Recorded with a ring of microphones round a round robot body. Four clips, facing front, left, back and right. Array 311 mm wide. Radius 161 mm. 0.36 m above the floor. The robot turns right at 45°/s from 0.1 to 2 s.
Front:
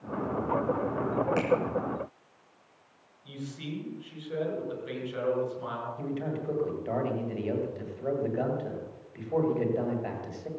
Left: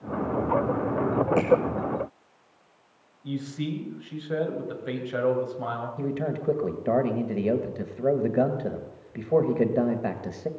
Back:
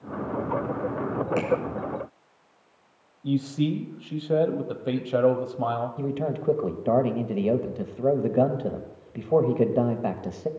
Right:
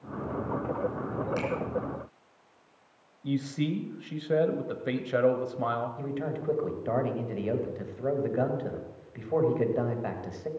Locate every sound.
1.4 s a finger snap: 70° right, 3.5 m; by 1.5 s 65° right, 3.5 m
3.2 s a man speaking: 155° right, 1.8 m
6.0 s a man speaking: 145° left, 1.6 m